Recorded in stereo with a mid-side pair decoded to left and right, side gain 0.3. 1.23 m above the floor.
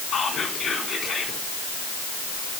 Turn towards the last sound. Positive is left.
turn(degrees=65)